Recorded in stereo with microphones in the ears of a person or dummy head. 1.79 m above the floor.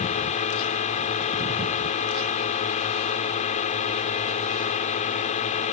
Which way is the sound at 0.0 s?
35° left (ahead or behind).